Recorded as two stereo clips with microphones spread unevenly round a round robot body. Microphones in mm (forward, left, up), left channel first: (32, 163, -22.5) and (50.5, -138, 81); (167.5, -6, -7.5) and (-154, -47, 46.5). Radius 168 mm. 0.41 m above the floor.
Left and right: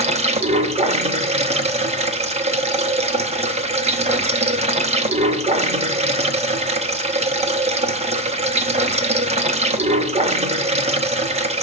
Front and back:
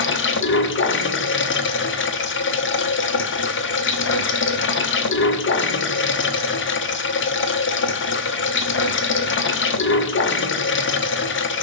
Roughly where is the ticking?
No ticking in this recording.